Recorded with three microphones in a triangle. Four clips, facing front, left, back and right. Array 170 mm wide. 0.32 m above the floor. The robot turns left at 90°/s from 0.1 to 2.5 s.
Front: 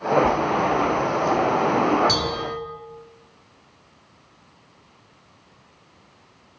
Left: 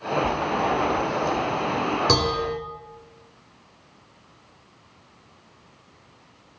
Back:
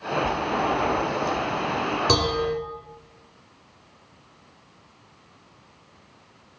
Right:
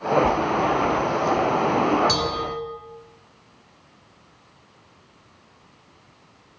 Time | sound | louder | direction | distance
2.1 | dishes clattering | left 2 dB, back 3 dB | 115° left | 2.5 m